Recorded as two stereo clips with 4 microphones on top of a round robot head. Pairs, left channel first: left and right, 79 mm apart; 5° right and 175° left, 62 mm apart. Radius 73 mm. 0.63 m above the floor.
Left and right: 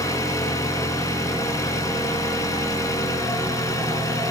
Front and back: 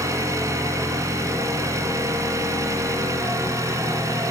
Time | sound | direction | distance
0.0 | an engine running | 140° left | 3 m